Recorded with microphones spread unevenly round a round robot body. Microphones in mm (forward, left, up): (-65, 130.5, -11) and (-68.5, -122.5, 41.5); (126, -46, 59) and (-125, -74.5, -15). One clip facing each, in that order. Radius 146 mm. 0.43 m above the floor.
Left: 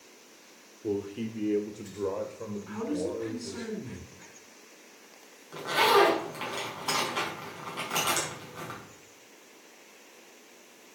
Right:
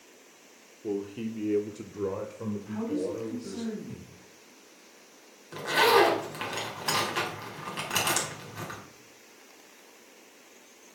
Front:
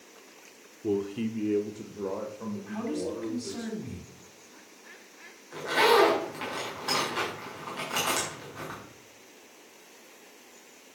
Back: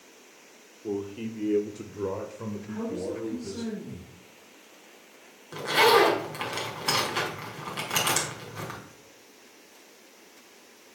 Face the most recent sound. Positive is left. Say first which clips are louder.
# right 1 dB, back 1 dB
turn(degrees=-145)